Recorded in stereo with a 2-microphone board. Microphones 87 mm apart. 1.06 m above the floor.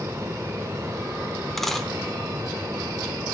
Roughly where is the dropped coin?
Centre.